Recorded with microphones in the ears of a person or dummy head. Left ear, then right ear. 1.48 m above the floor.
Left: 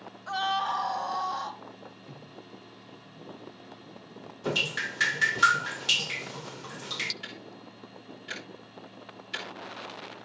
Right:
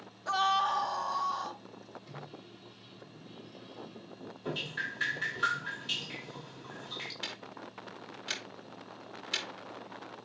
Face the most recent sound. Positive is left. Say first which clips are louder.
# right 1 dB
turn(degrees=-25)  # may be behind; listen again after turning